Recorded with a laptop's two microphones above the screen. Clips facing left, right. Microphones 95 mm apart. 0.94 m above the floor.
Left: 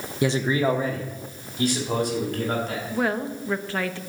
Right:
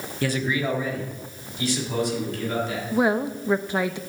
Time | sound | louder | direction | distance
0.2 | a man speaking | left 3 dB | 15° left (ahead or behind) | 0.7 m
2.9 | a woman speaking | right 4 dB | 15° right (ahead or behind) | 0.7 m